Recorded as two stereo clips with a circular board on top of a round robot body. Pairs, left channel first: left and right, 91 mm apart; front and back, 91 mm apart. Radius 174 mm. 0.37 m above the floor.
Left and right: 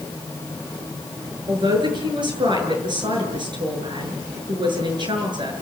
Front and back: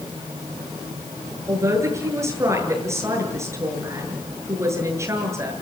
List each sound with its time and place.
1.5 s a man speaking: 125° right, 8 m